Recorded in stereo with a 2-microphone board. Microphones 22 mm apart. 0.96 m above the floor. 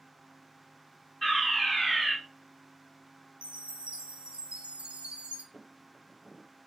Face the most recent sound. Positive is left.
turn(degrees=20)  # may be behind; listen again after turning